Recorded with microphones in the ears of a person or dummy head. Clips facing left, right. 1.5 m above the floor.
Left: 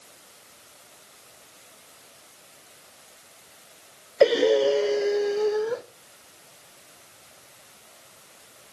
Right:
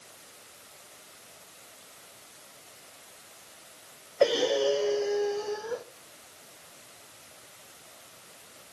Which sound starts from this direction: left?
Breathing, at 4.2 s.